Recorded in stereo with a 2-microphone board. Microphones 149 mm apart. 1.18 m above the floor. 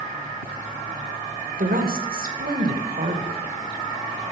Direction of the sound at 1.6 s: 75° right (ahead or behind).